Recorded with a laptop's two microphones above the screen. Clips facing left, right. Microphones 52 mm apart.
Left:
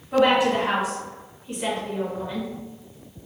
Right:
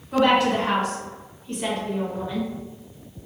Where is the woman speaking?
10° left (ahead or behind), 1.1 m.